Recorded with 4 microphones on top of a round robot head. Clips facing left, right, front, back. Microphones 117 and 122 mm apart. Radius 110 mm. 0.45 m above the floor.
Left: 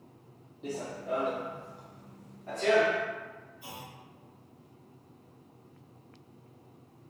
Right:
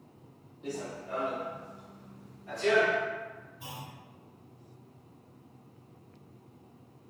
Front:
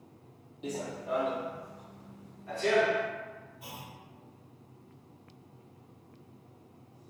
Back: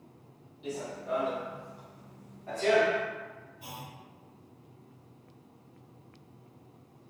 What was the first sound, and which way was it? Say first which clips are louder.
Running footsteps: left 2 dB, even; 25° left.